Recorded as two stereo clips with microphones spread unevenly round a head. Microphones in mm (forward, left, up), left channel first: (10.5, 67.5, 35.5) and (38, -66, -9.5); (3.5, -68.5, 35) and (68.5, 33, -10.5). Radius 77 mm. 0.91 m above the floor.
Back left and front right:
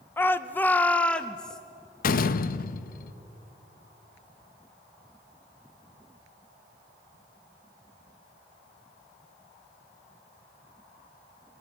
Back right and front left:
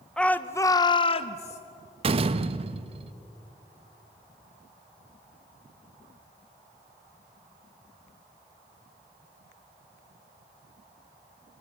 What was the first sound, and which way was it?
A shout, 5° left.